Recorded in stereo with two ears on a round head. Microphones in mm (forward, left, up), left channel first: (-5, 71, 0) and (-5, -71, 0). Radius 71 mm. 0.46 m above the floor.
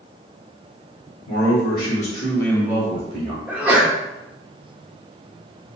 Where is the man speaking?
65° left (ahead or behind), 1.8 m; by 3.4 s 55° right (ahead or behind), 1.3 m.